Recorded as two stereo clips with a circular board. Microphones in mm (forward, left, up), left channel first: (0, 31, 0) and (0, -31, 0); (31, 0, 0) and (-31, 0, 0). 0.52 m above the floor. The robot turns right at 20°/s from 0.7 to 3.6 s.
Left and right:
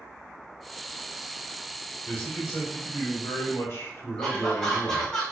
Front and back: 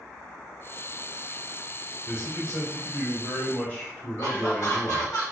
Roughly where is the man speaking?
Ahead left.